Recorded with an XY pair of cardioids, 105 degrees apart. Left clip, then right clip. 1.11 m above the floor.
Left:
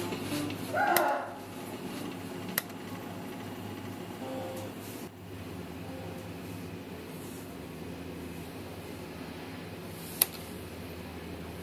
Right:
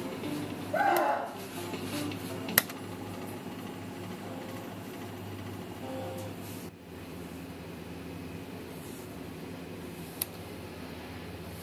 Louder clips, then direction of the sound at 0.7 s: Right 1 dB; 20° right.